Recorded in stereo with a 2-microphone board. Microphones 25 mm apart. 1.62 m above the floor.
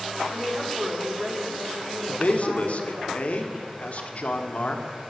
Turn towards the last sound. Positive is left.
turn(degrees=55)  # may be behind; listen again after turning